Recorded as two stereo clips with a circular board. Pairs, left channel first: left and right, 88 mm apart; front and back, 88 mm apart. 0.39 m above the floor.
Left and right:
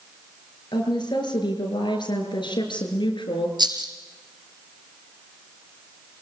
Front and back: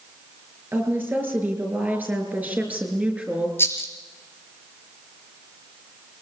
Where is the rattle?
65° right, 3 m.